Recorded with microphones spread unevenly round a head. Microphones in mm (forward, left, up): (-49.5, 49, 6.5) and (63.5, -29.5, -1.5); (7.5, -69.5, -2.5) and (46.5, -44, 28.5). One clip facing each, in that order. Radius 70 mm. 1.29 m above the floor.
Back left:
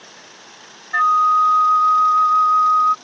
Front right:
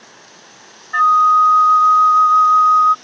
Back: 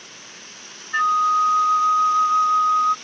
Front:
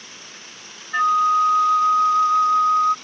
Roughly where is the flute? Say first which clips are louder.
Front right 3 dB, front 1 dB; left.